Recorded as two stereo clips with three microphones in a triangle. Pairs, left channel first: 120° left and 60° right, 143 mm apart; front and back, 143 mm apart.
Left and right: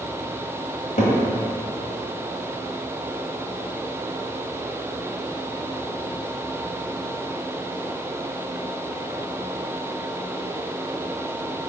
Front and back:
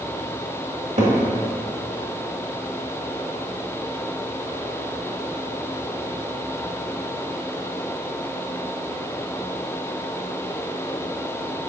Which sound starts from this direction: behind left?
A cupboard door, at 1.0 s.